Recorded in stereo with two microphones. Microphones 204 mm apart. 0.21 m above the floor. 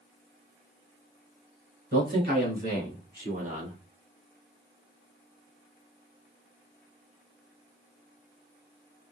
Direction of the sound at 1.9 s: 55° right (ahead or behind).